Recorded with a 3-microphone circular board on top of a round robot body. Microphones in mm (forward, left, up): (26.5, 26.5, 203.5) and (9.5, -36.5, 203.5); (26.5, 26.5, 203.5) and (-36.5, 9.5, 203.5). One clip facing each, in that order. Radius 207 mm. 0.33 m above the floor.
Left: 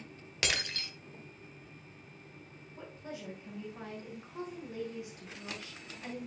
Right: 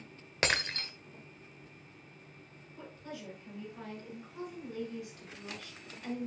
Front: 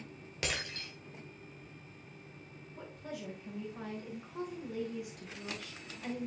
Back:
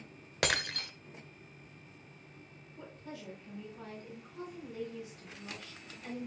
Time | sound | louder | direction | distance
0.4 | breaking glass | right 3 dB, back 6 dB | 155° right | 1.1 m
2.8 | a woman speaking | left 1 dB, front 3 dB | 10° left | 6.5 m